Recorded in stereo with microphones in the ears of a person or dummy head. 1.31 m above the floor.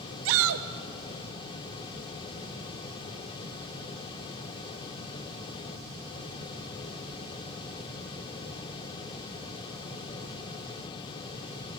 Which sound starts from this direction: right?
A shout, at 0.2 s.